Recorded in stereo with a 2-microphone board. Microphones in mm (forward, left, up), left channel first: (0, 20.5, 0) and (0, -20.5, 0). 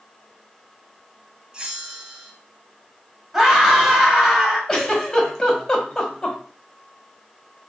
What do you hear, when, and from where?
1.5 s a bell: 20° right (ahead or behind), 0.7 m
3.3 s a scream: 10° right (ahead or behind), 1.5 m
4.7 s a giggle: 15° left (ahead or behind), 1.1 m